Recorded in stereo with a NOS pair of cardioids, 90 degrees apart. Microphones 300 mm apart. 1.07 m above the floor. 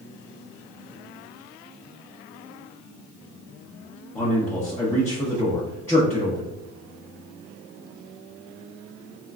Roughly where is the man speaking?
Ahead.